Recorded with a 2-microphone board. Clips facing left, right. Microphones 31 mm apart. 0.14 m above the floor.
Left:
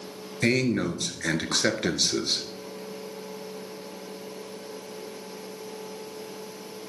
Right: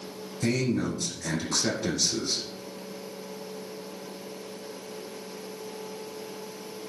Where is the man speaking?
55° left (ahead or behind), 1.8 m.